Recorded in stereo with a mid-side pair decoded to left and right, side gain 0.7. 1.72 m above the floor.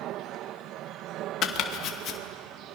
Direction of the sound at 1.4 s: 50° left.